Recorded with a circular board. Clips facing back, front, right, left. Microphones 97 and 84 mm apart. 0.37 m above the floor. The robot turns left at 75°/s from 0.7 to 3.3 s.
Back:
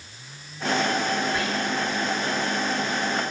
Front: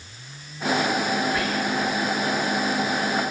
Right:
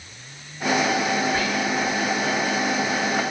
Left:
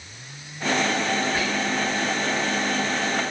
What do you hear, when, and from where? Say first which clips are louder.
1.3 s whispering: front 2 dB, right 1 dB; 135° right, 1.6 m; by 2.0 s 175° left, 1.6 m